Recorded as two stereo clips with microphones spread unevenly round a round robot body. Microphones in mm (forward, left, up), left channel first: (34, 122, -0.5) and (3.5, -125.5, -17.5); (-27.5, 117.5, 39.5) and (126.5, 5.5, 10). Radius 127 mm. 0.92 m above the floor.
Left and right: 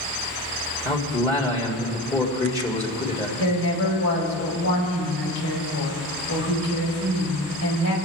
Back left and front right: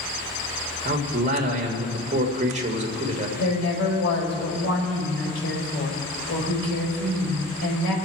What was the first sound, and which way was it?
A man speaking, 10° left.